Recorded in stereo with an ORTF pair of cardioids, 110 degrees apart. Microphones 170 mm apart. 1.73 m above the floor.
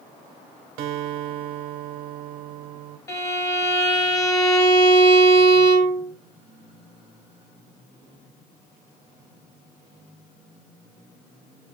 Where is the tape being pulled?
No tape being pulled in this recording.